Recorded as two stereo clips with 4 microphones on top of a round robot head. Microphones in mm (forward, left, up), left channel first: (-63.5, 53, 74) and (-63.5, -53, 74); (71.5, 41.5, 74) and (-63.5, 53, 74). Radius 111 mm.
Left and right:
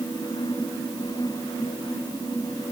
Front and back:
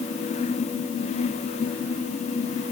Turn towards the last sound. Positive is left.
No sound to turn to.